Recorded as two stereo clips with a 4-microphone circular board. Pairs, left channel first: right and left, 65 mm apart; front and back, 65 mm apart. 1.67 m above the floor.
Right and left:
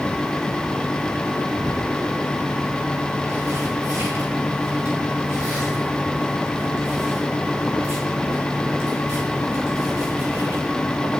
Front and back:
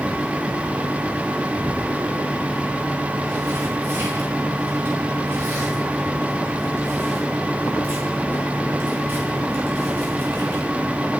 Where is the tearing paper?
130° left, 5 m.